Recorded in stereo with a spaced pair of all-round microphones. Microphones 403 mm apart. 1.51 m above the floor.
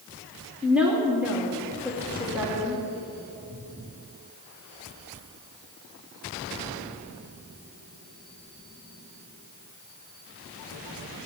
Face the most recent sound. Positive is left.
turn(degrees=-5)  # may be behind; listen again after turning